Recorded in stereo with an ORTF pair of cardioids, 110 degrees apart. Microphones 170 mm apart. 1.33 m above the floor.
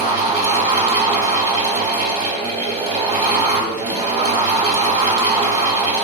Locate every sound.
0.0 s a fan: 40° right, 2 m